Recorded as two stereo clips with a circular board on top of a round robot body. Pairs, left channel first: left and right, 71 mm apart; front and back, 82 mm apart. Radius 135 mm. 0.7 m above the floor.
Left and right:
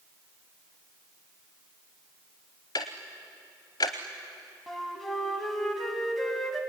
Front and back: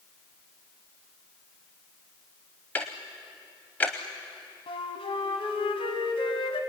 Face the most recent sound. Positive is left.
turn(degrees=5)